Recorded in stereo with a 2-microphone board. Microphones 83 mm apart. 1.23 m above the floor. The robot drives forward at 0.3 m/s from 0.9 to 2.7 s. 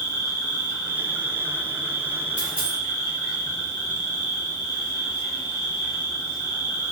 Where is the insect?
60° left (ahead or behind), 0.8 m; by 6.9 s 70° left (ahead or behind), 0.7 m.